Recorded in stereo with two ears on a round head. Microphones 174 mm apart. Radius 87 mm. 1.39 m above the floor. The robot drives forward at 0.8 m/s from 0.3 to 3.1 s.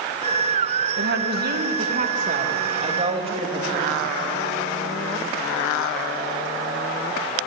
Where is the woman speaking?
60° right (ahead or behind), 1.6 m; by 4.1 s 30° right (ahead or behind), 3 m.